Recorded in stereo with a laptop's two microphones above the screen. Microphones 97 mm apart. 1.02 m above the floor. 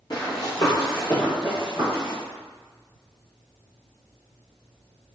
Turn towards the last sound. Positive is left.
turn(degrees=5)  # may be behind; listen again after turning